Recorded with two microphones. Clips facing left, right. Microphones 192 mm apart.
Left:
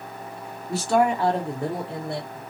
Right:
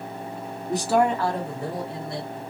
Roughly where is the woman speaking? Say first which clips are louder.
Even; right.